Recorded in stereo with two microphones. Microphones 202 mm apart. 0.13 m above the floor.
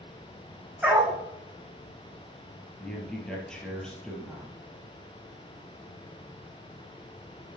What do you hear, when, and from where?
0.8 s a dog barking: 10° right (ahead or behind), 2 m
2.8 s a man speaking: 5° left (ahead or behind), 3 m